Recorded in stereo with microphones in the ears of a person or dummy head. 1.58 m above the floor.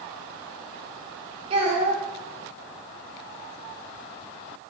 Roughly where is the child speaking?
Right.